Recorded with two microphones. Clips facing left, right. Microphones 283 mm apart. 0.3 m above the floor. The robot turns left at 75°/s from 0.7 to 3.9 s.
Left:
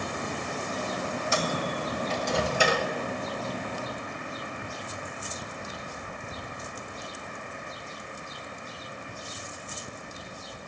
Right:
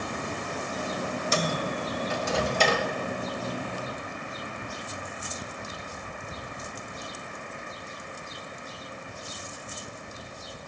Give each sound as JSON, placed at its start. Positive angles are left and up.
{"t": 1.3, "sound": "a microwave", "side_deg": -40, "distance_m": 0.9}